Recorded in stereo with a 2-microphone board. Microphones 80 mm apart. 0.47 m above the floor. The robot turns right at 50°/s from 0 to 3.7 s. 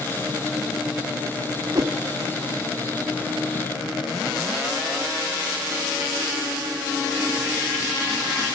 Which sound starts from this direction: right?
A whoosh, at 1.8 s.